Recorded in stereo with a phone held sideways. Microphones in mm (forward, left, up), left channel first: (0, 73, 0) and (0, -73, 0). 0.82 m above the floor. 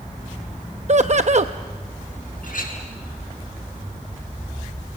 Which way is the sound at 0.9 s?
50° right (ahead or behind).